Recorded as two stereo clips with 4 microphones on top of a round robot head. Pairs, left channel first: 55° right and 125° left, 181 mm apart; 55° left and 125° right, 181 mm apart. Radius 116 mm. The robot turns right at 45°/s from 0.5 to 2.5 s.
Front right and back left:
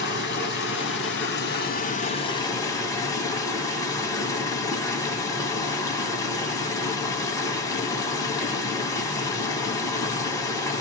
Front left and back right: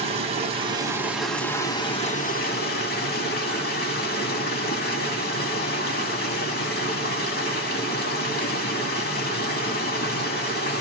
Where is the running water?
70° right, 2.5 m; by 10.8 s 20° left, 2.5 m.